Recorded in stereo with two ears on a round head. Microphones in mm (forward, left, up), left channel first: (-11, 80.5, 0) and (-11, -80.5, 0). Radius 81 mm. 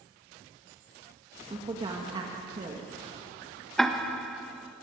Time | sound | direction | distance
1.5 | a woman speaking | 25° right (ahead or behind) | 2.0 m
3.8 | ticking | centre (ahead or behind) | 1.3 m